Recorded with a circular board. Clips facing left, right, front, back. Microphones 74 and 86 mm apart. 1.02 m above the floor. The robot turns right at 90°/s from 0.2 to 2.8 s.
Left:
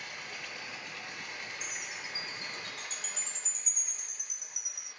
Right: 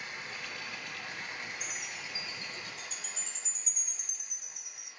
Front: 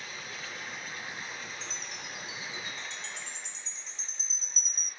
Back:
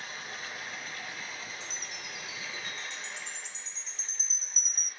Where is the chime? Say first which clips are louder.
Even, front 1 dB; 20° right, 2.0 m; by 4.9 s 90° left, 2.0 m.